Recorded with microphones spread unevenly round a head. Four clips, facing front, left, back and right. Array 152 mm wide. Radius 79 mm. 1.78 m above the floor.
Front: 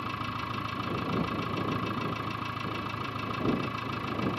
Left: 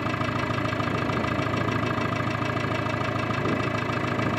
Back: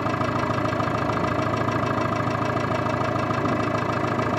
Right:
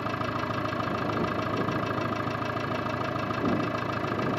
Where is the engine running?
170° right.